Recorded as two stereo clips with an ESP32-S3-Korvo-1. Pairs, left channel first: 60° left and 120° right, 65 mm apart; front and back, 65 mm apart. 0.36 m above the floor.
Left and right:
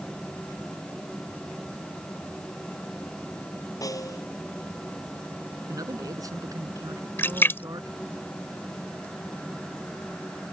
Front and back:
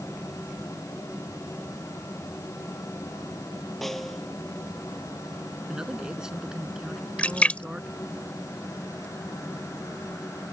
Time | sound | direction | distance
3.8 | a snare drum | 85° left | ?
5.7 | a man speaking | 100° right | ?
7.2 | a splash | 55° left | ?